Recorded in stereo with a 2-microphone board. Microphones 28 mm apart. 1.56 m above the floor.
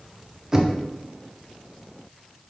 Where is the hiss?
No hiss in this recording.